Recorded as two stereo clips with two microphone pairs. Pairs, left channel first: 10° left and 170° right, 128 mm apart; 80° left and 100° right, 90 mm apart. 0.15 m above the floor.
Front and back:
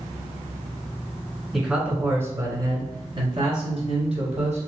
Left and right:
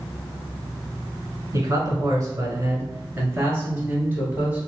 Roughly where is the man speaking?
Right.